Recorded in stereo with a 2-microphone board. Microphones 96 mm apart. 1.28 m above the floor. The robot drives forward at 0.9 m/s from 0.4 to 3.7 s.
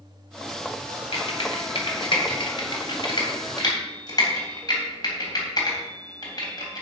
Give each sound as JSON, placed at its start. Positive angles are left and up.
{"t": 1.1, "sound": "typing on a keyboard", "side_deg": 75, "distance_m": 2.5}